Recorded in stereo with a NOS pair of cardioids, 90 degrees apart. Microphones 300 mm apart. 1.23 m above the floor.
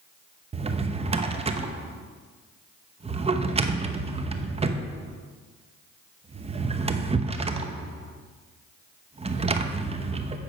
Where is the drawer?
20° right, 0.8 m.